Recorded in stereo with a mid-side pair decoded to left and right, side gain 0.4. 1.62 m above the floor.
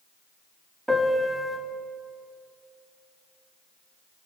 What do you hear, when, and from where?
0.9 s a piano: 10° right, 3 m